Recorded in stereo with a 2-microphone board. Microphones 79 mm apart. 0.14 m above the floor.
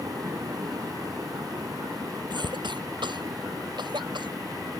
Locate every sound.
2.3 s a cough: 65° right (ahead or behind)